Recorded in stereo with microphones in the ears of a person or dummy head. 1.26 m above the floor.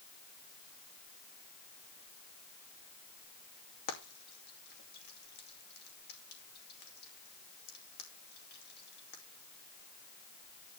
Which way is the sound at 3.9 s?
50° left (ahead or behind).